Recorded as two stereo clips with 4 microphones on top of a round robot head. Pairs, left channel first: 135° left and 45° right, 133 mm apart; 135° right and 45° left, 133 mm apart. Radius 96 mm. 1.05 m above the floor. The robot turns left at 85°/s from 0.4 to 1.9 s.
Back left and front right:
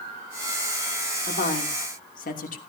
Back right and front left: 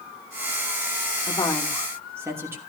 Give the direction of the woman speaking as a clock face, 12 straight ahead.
6 o'clock.